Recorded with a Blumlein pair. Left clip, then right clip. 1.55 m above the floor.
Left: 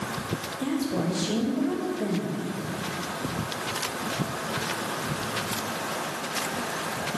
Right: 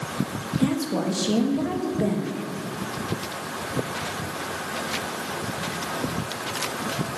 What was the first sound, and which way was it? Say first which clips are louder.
A woman speaking: right 4 dB; 15° right.